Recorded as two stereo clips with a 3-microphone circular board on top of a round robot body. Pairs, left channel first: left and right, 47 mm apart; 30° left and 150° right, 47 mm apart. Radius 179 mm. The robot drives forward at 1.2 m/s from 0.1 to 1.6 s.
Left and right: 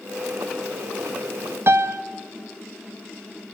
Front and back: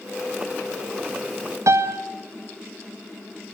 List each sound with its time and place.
1.7 s a piano: 130° right, 1.0 m